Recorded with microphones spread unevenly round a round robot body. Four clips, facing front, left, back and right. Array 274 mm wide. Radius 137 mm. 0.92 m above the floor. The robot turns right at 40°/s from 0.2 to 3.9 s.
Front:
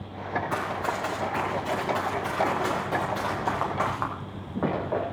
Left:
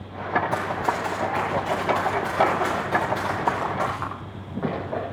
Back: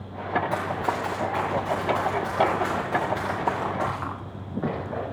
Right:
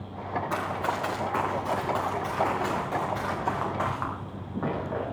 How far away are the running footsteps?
About 7 m.